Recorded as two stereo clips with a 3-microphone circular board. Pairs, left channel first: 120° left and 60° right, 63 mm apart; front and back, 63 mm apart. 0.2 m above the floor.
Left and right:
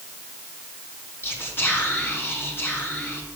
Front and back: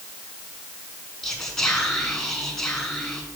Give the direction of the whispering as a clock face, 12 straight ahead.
9 o'clock.